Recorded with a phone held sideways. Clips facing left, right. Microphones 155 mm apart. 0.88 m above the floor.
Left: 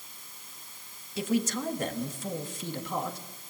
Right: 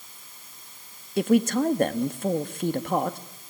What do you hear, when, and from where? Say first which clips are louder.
1.2 s a man speaking: right 8 dB; 60° right (ahead or behind), 1.4 m